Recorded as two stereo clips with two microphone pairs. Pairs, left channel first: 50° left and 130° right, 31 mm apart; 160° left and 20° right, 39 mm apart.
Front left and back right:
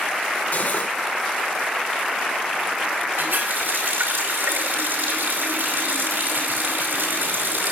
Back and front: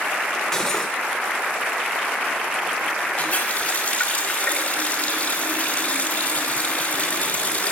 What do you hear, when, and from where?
0.5 s cutlery clinking: 85° left, 3 m
3.2 s a running tap: 145° right, 6 m